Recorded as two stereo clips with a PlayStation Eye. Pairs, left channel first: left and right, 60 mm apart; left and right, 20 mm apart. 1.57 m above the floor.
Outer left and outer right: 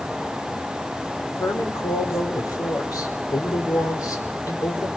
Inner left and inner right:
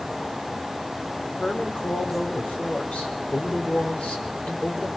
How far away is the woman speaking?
About 4.5 m.